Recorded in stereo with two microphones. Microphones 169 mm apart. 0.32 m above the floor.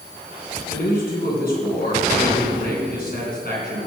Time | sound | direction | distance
0.7 | a man speaking | 65° left (ahead or behind) | 3 m